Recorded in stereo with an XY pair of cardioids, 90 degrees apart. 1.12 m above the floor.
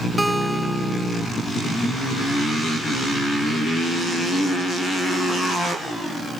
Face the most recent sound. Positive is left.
turn(degrees=-10)